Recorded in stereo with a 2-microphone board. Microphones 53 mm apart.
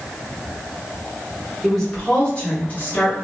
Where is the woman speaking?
5° left (ahead or behind), 1.3 m; by 3.2 s 40° left (ahead or behind), 1.0 m.